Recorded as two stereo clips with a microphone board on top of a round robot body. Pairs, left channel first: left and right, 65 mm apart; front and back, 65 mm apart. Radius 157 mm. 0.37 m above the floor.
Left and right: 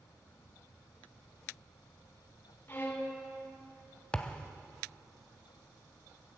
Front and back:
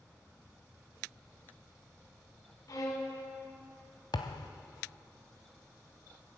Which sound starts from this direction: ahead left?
A violin, at 2.7 s.